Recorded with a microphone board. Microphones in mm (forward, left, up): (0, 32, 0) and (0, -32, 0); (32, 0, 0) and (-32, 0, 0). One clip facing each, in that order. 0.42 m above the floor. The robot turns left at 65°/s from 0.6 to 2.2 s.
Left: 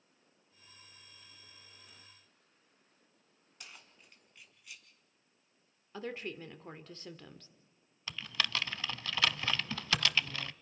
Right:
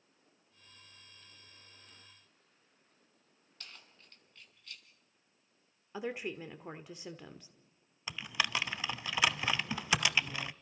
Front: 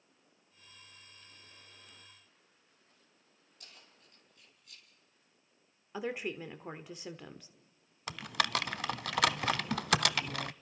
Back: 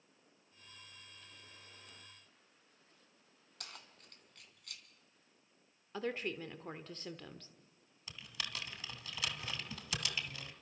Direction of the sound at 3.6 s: 165° left.